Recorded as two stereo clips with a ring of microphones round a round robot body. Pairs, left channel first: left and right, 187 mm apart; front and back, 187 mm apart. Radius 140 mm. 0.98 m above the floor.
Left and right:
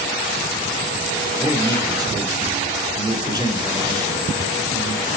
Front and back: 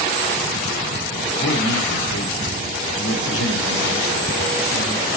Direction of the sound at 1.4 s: 20° right.